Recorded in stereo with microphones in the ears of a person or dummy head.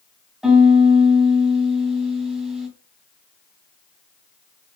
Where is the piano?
5° right (ahead or behind), 3 m.